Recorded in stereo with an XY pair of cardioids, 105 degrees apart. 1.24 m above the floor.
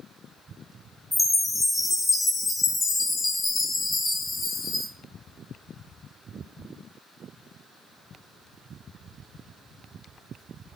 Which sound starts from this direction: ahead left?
A chime, at 1.1 s.